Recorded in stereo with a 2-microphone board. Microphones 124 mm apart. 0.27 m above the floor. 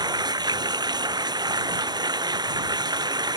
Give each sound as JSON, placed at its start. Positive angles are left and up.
{"t": 0.0, "sound": "running water", "side_deg": -35}